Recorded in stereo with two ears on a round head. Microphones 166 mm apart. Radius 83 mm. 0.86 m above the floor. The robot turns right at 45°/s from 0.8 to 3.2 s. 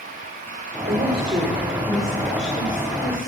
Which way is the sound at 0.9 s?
45° right.